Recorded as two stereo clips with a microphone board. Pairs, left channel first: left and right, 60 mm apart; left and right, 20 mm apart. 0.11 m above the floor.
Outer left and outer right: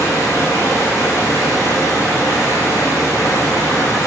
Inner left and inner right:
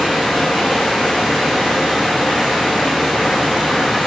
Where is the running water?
70° left (ahead or behind), 5.5 m.